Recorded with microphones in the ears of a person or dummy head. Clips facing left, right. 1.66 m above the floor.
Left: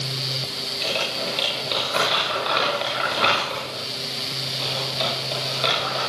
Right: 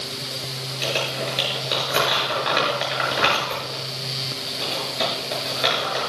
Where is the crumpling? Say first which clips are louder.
Right 2 dB; 25° right (ahead or behind), 8.5 m.